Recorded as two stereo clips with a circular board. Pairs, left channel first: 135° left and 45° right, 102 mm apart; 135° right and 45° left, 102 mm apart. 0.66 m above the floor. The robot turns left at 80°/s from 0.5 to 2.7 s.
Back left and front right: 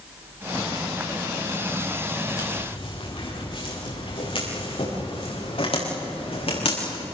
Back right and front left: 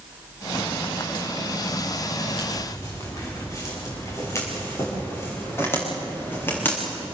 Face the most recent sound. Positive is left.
turn(degrees=155)